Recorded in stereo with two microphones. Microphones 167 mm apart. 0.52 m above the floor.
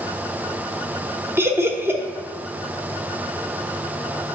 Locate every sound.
1.4 s laughter: 15° right (ahead or behind), 0.8 m